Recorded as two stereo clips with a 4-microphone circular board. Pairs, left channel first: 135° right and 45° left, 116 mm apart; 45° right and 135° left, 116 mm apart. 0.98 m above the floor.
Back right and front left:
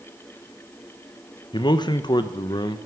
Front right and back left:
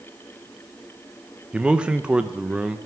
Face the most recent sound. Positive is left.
turn(degrees=-150)